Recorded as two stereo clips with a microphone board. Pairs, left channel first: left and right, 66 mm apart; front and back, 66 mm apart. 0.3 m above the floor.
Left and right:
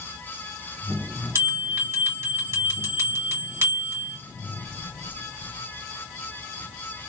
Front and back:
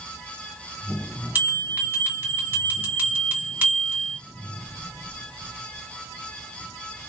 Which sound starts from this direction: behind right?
A bell, at 1.4 s.